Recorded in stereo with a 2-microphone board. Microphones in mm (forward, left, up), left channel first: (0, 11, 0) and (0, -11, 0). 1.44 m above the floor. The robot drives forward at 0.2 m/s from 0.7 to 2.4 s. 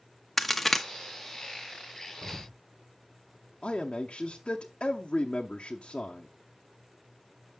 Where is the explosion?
60° right (ahead or behind), 0.8 m; by 2.6 s 65° right (ahead or behind), 0.8 m.